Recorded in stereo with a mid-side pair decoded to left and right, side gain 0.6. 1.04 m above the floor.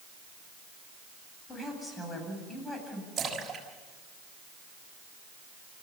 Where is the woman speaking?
25° left, 8 m.